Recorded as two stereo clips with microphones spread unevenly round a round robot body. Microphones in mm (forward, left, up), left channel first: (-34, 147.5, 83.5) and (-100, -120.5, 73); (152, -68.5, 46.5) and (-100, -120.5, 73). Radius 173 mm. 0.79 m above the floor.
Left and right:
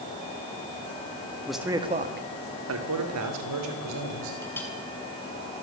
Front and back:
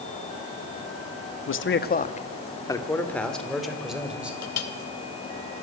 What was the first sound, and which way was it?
A man speaking, 10° right.